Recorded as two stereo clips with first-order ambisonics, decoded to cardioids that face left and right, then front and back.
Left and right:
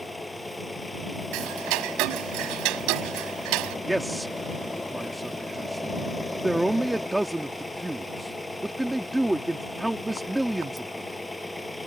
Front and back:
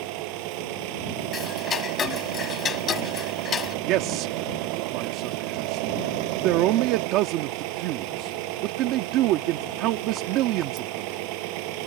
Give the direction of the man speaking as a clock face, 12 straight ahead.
6 o'clock.